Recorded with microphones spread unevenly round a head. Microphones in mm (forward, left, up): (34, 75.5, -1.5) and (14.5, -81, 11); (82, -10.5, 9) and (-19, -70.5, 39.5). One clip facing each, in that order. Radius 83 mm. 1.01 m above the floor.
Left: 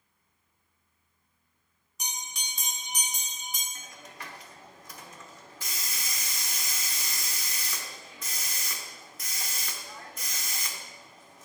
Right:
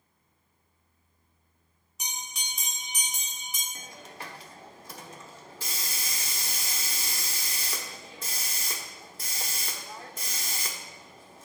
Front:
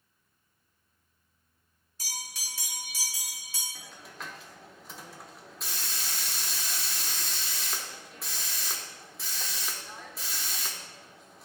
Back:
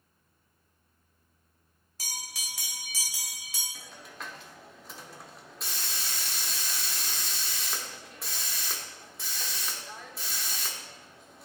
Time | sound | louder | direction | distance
2.0 | a bell | even, even | 175° left | 1.0 m
3.8 | a hiss | right 3 dB, back 1 dB | 85° right | 0.7 m